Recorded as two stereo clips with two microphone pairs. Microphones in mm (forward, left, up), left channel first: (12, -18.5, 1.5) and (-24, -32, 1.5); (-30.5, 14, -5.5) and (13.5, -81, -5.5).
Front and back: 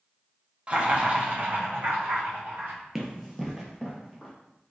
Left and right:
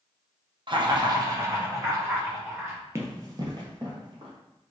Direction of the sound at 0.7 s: 100° right.